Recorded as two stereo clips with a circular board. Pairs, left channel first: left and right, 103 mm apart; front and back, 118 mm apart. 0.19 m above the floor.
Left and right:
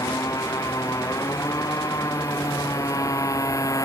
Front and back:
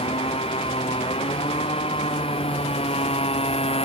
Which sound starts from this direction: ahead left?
A motorcycle, at 0.0 s.